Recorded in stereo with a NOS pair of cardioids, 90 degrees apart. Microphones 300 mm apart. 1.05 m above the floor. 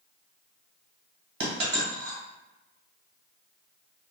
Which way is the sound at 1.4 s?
50° right.